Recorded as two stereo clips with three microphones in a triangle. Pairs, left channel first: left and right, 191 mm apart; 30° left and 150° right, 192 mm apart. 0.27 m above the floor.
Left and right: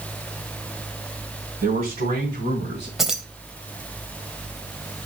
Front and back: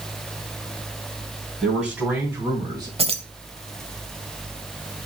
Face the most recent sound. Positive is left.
turn(degrees=-175)